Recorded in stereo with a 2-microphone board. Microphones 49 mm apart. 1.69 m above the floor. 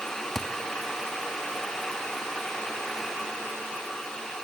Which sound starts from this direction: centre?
A thud, at 0.3 s.